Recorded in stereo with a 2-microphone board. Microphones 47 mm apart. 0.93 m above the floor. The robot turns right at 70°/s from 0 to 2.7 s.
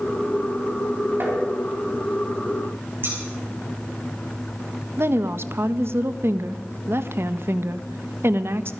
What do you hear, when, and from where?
1.2 s tapping: 50° right (ahead or behind), 5 m; by 1.4 s 35° right (ahead or behind), 5 m
3.0 s scissors: 45° right (ahead or behind), 5.5 m
5.0 s a woman speaking: 55° right (ahead or behind), 0.7 m